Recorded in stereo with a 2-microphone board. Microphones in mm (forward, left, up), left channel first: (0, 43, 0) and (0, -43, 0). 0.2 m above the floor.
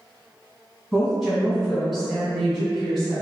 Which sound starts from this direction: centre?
A woman speaking, at 0.9 s.